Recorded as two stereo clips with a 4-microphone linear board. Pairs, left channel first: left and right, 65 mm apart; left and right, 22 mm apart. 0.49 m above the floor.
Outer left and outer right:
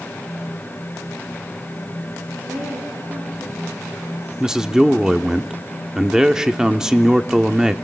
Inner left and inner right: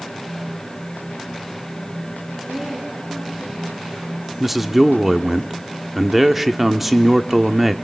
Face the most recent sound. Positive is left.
turn(degrees=-10)  # may be behind; listen again after turning